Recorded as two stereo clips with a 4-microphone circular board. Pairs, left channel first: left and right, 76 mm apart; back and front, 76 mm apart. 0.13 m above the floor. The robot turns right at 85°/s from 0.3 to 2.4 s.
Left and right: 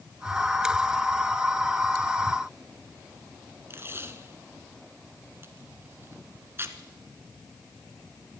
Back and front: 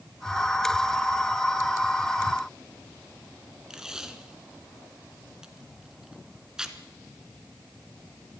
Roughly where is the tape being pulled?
Right.